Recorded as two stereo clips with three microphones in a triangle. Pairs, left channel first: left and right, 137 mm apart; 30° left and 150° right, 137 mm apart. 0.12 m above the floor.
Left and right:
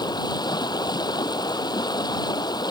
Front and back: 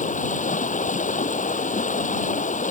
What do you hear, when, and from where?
0.0 s running water: 35° left